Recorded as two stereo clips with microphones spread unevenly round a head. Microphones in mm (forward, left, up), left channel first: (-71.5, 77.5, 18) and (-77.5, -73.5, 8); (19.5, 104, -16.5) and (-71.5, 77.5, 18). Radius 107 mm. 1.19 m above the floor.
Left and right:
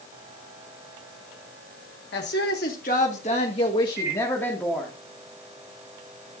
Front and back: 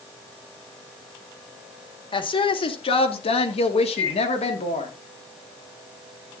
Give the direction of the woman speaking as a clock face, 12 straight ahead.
10 o'clock.